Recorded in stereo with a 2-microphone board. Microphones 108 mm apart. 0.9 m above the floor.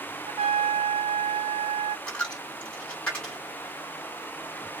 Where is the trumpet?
70° right (ahead or behind), 0.6 m.